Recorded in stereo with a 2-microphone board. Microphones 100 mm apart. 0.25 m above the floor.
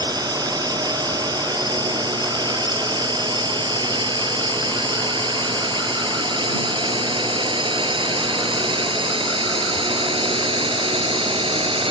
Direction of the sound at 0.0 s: 45° right (ahead or behind).